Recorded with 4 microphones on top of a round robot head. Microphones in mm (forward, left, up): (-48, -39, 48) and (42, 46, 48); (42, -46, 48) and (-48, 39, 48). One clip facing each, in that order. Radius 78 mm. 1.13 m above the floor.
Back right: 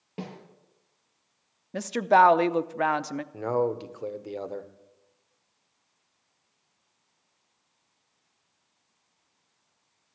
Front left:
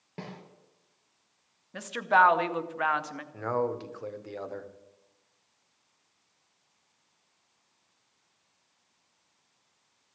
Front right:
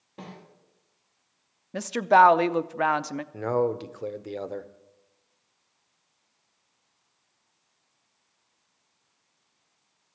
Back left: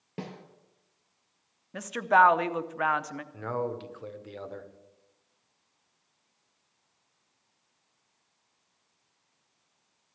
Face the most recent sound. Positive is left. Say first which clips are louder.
# back right 3 dB, front right 7 dB
turn(degrees=-75)